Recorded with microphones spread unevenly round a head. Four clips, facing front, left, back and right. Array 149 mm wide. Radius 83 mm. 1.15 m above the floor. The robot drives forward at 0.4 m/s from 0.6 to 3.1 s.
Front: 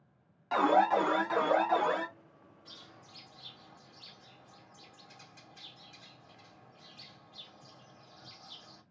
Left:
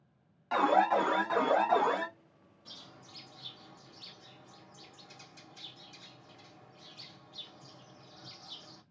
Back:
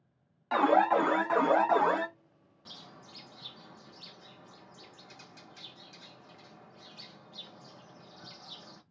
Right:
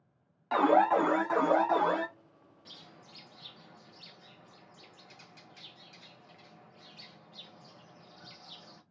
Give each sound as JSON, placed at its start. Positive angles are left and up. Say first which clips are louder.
{"t": 0.5, "sound": "an alarm", "louder": "right 2 dB, back 1 dB", "azimuth_deg": -90, "distance_m": 1.0}
{"t": 2.6, "sound": "a bird", "louder": "left 1 dB, back 6 dB", "azimuth_deg": -175, "distance_m": 0.8}